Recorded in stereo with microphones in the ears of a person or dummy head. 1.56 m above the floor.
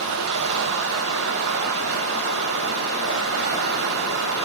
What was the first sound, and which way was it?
Running water, 70° right (ahead or behind).